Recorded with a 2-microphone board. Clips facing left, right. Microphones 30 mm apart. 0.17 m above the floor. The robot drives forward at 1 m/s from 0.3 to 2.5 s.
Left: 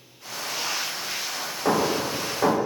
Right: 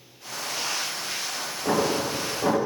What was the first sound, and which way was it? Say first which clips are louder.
Hammering: left 1 dB; 70° left (ahead or behind).